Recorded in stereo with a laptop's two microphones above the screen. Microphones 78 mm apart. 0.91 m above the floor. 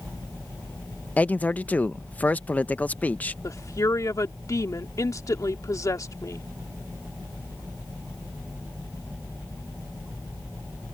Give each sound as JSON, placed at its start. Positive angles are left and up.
{"t": 1.2, "sound": "a man speaking", "side_deg": 20}
{"t": 3.4, "sound": "a woman speaking", "side_deg": 45}